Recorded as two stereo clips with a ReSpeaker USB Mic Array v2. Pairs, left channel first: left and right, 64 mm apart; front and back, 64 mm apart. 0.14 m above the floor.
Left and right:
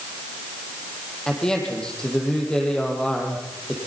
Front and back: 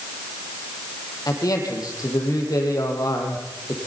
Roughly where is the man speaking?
Ahead.